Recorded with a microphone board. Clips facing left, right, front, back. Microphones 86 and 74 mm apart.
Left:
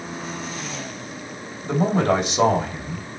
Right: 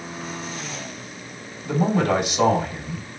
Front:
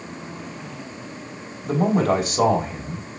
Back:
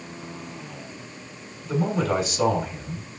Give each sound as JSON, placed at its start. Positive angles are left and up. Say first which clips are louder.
{"t": 1.6, "sound": "a man speaking", "louder": "left 1 dB, front 5 dB", "azimuth_deg": 30, "distance_m": 3.5}